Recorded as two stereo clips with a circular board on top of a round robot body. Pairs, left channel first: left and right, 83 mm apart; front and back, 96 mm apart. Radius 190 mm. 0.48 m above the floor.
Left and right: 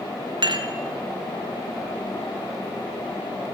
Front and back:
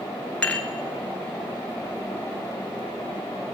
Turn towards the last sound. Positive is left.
turn(degrees=-80)